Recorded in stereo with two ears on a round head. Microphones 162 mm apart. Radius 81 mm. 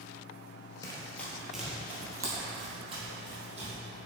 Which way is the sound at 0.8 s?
20° left (ahead or behind).